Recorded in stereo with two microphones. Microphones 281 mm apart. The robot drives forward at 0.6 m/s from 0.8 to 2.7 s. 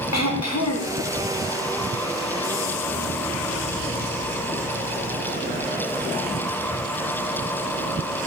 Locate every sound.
0.1 s throat clearing: 65° left (ahead or behind), 0.6 m; by 1.0 s 60° left (ahead or behind), 0.6 m